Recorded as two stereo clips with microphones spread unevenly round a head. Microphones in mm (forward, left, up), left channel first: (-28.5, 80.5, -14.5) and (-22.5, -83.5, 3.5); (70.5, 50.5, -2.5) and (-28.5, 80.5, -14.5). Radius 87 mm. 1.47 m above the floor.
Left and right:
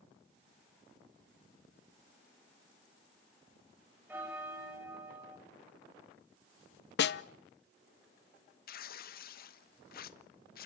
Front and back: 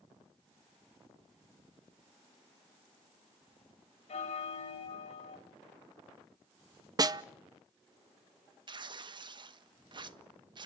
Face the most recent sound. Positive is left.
turn(degrees=120)